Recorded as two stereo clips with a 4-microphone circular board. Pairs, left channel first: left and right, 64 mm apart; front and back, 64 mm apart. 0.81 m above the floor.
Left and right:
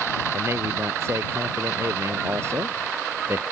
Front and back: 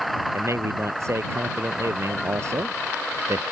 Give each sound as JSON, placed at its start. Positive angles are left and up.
{"t": 0.3, "sound": "a man speaking", "azimuth_deg": -140}